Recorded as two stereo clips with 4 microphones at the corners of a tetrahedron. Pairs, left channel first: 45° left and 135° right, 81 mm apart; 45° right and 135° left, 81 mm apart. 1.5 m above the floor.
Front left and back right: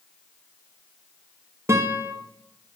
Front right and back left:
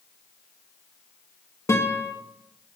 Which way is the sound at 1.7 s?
90° right.